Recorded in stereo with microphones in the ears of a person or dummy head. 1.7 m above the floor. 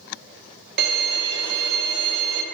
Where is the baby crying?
No baby crying in this recording.